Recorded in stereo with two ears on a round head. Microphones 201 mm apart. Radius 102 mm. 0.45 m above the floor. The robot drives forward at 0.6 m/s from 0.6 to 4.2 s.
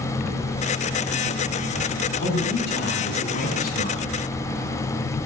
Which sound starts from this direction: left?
A man speaking, at 2.2 s.